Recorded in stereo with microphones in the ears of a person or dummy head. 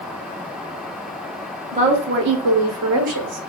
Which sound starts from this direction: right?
A woman speaking, at 1.7 s.